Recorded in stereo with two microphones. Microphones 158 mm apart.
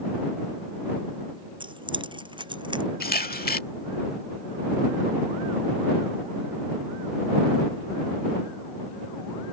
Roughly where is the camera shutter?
Left.